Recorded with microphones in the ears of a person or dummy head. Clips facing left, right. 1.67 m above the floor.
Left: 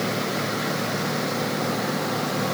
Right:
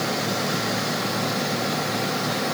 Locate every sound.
Only background noise.